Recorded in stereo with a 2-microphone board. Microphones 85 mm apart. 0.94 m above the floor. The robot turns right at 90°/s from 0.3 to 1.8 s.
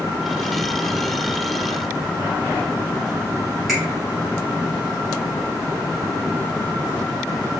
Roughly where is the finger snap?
Centre.